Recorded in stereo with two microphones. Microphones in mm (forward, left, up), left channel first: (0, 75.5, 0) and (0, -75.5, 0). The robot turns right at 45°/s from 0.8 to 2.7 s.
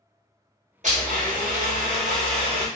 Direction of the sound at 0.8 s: 115° right.